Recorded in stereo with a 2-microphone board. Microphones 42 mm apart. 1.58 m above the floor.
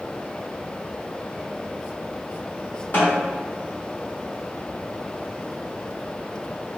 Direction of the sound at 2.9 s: 45° left (ahead or behind).